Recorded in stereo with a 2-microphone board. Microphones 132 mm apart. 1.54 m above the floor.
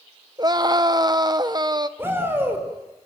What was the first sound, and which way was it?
A scream, 35° right (ahead or behind).